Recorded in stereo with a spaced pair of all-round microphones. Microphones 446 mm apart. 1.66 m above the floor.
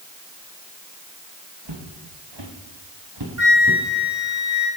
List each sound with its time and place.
1.6 s footsteps: 65° right (ahead or behind), 5 m; by 3.8 s 45° right (ahead or behind), 2.5 m
3.4 s a flute: 40° right (ahead or behind), 4.5 m